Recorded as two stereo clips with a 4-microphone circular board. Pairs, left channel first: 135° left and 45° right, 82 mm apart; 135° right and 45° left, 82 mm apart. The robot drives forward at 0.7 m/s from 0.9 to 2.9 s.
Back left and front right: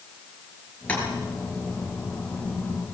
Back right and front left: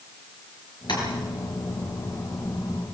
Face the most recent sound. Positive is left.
turn(degrees=-155)